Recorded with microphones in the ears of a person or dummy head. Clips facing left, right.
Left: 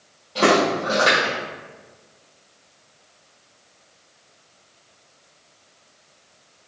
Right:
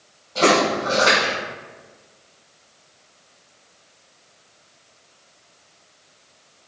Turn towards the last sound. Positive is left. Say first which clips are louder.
# even
turn(degrees=20)  # may be behind; listen again after turning